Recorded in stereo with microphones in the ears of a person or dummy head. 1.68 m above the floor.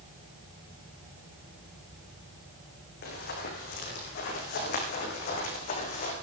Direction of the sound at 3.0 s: 70° left (ahead or behind).